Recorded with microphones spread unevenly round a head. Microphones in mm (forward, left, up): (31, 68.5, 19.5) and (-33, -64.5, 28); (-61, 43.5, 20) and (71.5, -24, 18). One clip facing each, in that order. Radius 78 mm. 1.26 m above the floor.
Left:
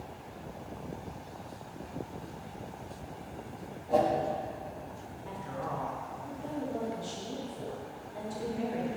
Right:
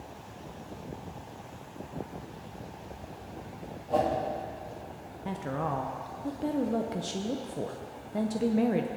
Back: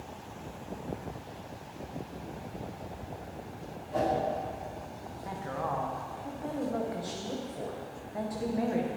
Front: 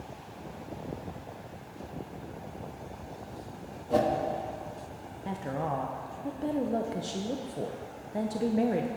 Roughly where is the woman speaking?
Right.